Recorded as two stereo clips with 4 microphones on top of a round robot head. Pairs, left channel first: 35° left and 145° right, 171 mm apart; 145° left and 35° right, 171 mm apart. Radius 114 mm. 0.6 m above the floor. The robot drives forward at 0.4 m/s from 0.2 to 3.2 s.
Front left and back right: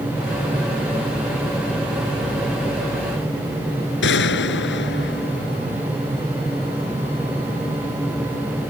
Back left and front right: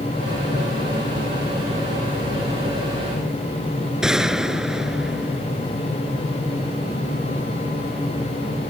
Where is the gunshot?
50° left.